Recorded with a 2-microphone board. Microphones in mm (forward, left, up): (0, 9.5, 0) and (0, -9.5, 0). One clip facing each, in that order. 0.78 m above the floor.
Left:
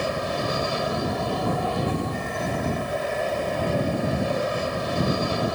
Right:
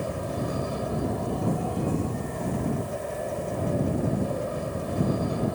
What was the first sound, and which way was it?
An aircraft, 70° left (ahead or behind).